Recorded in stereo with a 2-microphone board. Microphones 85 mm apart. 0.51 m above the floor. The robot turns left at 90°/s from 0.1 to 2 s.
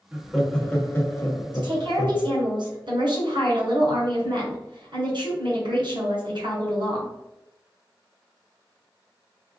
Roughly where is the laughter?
Centre.